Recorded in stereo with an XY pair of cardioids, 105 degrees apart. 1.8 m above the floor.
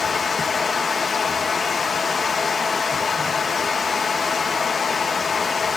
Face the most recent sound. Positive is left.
turn(degrees=45)